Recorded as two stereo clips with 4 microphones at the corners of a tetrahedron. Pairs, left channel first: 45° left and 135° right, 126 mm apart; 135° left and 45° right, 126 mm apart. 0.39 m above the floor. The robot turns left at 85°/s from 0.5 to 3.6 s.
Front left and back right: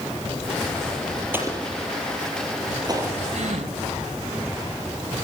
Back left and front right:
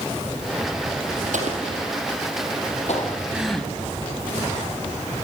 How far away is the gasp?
About 1.9 m.